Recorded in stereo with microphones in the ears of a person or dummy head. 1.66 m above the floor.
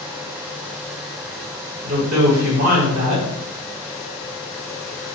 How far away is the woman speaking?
About 1.5 m.